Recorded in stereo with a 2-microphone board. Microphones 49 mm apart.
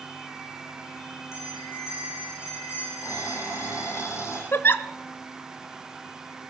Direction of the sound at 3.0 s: 80° left.